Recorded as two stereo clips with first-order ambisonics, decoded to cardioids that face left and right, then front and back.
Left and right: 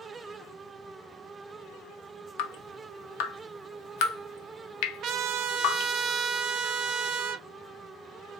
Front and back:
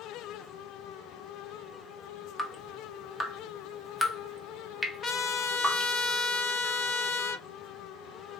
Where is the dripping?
80° left, 0.7 m.